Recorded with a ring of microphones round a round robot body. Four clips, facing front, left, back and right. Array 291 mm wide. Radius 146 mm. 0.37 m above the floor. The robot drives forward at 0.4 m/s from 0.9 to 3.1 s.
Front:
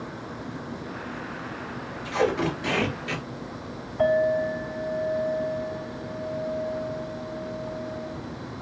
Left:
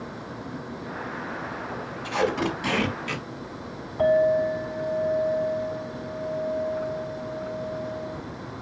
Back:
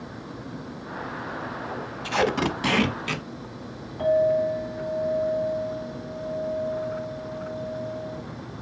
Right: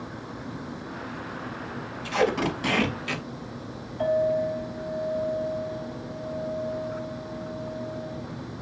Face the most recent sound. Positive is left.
turn(degrees=85)